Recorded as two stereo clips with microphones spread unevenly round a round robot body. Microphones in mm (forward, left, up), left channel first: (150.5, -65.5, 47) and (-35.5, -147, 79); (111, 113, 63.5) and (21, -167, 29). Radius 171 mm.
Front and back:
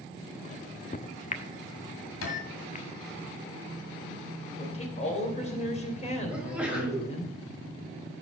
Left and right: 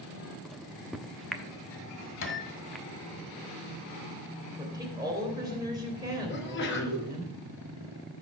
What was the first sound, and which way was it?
A microwave, 20° right.